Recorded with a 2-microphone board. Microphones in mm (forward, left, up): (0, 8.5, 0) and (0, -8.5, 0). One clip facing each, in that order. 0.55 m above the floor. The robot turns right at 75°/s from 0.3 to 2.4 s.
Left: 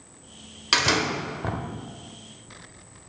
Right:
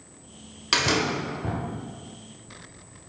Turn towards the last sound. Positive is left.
turn(degrees=135)